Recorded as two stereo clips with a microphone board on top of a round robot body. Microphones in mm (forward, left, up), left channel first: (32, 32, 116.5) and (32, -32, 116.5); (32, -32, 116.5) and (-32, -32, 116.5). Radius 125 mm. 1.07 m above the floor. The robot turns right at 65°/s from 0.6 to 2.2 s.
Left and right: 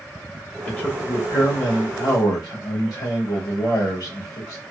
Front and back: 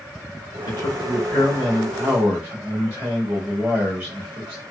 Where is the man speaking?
20° left, 2.5 m; by 4.6 s 120° left, 2.5 m.